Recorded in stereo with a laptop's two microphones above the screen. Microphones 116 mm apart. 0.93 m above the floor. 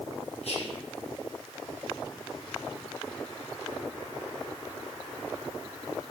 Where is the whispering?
60° left (ahead or behind), 1.9 m.